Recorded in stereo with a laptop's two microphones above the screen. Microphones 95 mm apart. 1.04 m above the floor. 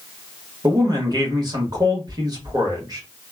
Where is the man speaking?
45° right (ahead or behind), 1.4 m.